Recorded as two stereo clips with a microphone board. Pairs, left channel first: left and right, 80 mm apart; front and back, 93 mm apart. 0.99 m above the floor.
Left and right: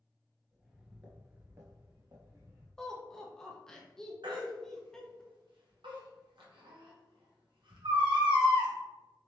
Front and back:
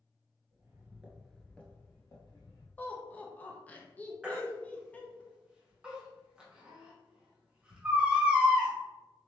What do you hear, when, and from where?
0.5 s footsteps: straight behind, 1.2 m; by 2.7 s 45° right, 2 m
2.8 s laughter: 25° left, 0.8 m
4.2 s a baby crying: 100° right, 1.1 m